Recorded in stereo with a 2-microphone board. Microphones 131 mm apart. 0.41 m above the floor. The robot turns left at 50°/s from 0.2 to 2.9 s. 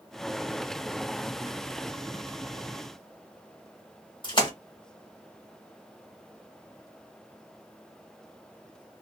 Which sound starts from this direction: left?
A splash, at 4.2 s.